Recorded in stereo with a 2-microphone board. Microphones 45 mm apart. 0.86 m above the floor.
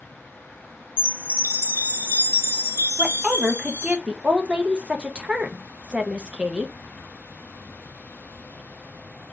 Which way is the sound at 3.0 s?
20° right (ahead or behind).